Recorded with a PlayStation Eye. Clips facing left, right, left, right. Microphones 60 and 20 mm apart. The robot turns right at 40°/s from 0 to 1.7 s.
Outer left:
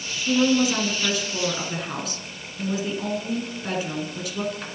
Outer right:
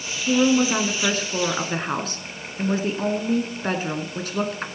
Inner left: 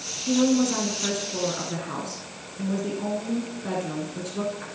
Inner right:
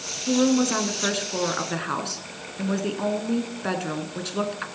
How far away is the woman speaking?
About 1.7 m.